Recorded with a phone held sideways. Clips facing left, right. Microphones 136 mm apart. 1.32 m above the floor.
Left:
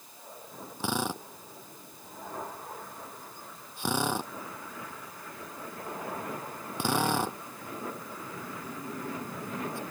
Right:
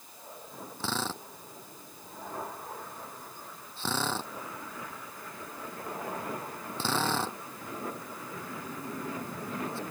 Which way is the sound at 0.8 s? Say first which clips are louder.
Left 3 dB; 15° left (ahead or behind).